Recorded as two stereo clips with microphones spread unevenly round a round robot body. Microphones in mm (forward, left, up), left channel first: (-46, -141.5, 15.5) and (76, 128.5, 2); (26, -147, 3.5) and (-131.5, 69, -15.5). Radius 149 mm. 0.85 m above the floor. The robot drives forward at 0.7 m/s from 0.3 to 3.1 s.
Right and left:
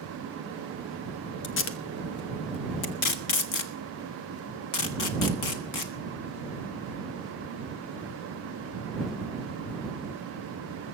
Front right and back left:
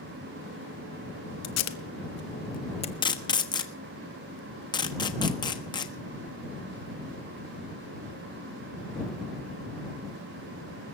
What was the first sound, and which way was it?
Tape being pulled, 65° right.